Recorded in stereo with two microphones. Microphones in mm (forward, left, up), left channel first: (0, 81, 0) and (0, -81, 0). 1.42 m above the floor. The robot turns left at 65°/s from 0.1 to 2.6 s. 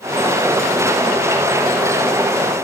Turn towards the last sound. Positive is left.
No sound to turn to.